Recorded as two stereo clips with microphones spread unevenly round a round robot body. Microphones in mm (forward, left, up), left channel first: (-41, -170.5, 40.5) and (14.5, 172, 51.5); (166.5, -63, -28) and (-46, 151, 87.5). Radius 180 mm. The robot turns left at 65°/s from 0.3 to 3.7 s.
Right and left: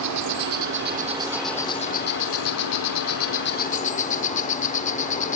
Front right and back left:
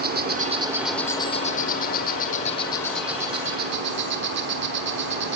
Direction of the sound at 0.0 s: 65° left.